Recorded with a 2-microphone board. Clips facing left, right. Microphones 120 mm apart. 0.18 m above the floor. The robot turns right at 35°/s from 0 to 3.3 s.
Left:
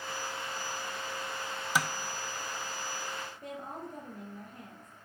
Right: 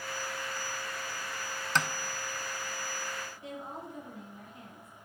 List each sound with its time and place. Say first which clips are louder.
1.8 s tapping: even; 10° left (ahead or behind), 0.5 m; by 1.9 s 5° left (ahead or behind), 0.5 m
3.4 s a woman speaking: even; 45° left (ahead or behind), 4.5 m